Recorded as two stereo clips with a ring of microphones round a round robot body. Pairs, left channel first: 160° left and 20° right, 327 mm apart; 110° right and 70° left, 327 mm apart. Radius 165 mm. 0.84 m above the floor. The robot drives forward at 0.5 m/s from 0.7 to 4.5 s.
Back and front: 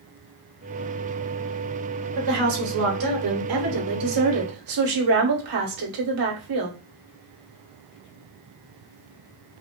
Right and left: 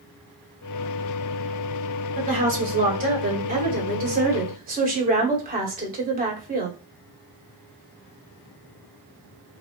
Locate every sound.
2.1 s a woman speaking: straight ahead, 3.5 m